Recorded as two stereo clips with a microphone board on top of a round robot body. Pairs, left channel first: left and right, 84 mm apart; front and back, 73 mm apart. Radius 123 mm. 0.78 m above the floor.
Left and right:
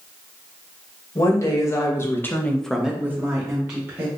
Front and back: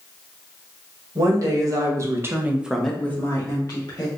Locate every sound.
1.1 s a woman speaking: 145° left, 2 m; by 4.1 s 40° right, 1.8 m